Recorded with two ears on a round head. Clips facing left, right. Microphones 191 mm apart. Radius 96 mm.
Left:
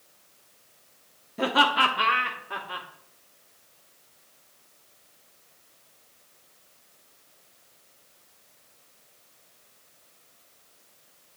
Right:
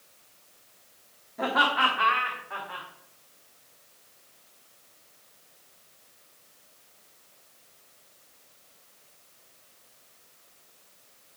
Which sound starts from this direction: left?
Laughter, at 1.4 s.